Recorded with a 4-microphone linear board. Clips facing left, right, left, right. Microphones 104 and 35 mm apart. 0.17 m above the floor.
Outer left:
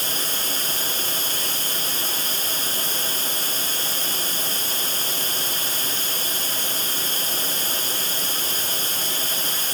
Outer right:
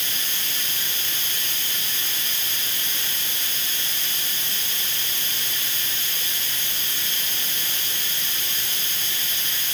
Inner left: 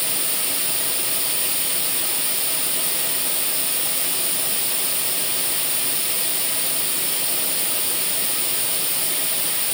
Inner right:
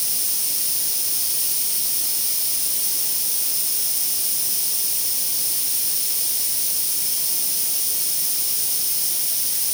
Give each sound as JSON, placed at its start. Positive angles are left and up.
{"t": 0.0, "sound": "running water", "side_deg": 35, "distance_m": 1.2}